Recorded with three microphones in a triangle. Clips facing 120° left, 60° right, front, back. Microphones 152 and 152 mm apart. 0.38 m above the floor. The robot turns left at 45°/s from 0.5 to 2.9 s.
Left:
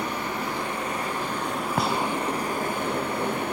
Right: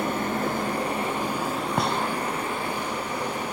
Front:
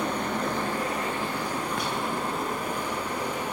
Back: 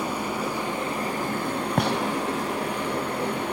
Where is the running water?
100° right, 5 m; by 3.5 s 155° left, 5 m.